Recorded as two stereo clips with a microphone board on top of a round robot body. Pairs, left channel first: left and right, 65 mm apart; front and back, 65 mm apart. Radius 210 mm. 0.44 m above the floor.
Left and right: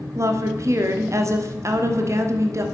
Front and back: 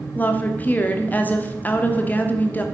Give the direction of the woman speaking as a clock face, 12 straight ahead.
2 o'clock.